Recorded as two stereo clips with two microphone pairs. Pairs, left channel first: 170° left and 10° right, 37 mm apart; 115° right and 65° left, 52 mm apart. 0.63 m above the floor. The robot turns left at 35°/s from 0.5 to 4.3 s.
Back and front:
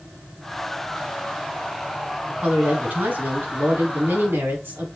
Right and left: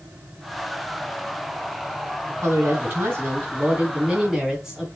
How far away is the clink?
No clink in this recording.